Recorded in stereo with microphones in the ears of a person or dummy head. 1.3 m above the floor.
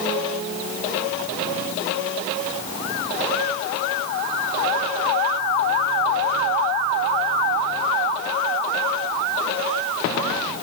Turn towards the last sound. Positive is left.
No sound to turn to.